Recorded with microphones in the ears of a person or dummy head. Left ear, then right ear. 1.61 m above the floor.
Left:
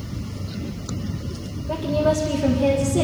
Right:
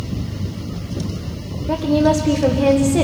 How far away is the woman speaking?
About 1.6 m.